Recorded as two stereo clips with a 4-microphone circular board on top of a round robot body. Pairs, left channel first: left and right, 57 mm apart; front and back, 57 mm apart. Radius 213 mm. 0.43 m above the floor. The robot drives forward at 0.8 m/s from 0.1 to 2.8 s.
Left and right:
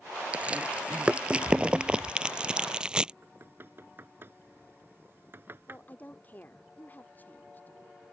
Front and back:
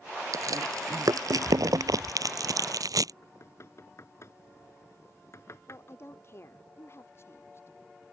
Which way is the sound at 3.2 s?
40° right.